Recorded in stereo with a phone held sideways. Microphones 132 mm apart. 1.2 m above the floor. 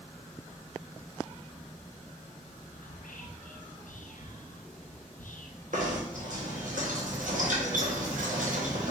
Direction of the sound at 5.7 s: 75° right (ahead or behind).